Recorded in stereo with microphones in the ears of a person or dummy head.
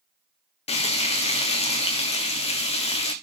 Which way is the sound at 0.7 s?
30° left (ahead or behind).